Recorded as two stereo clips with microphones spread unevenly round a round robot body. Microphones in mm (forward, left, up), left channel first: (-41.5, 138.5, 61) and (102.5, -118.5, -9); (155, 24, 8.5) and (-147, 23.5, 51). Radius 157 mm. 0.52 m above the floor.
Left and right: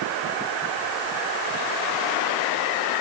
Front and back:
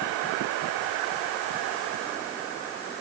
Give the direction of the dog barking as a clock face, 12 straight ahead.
No dog barking in this recording.